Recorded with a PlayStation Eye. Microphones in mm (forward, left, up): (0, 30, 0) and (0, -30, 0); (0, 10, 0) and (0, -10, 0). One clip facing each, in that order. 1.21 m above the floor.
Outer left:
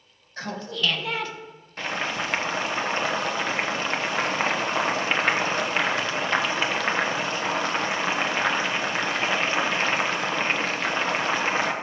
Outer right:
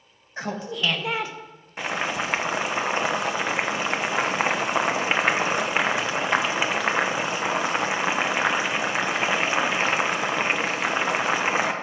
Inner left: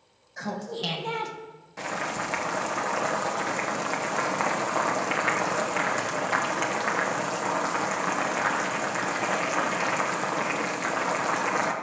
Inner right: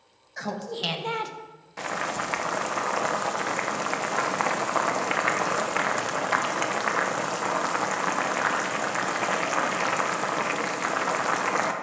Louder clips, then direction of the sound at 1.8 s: Outer right 1 dB, inner right 1 dB; 15° right (ahead or behind).